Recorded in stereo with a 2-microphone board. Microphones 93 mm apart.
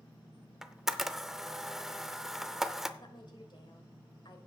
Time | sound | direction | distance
0.6 | a camera shutter | 5° right (ahead or behind) | 0.6 m
3.0 | a woman speaking | 55° left (ahead or behind) | 1.9 m